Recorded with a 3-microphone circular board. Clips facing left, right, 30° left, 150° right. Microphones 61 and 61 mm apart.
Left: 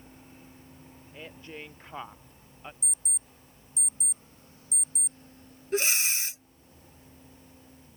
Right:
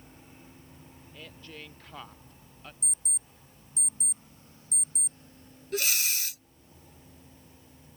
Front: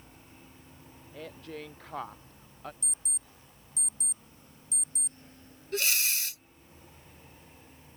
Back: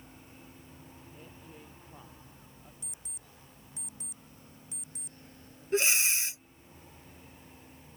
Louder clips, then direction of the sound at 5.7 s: Left 3 dB, back 3 dB; 150° left.